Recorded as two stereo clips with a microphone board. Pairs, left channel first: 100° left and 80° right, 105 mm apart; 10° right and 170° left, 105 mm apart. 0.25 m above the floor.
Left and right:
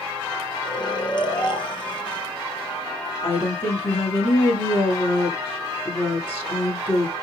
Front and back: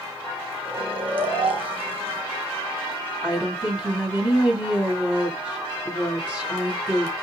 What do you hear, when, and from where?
0.7 s snoring: 140° left, 1.2 m
3.2 s a woman speaking: 95° left, 1.7 m